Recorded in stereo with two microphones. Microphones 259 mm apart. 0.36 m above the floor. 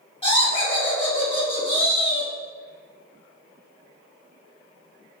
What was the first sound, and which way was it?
Laughter, 20° left (ahead or behind).